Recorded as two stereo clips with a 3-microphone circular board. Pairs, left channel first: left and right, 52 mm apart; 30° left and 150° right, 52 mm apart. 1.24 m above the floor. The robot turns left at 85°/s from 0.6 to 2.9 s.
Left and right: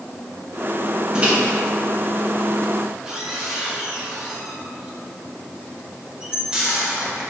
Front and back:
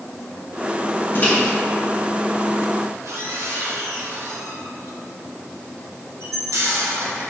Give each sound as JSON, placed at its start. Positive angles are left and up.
{"t": 1.1, "sound": "a microwave", "azimuth_deg": -15, "distance_m": 1.3}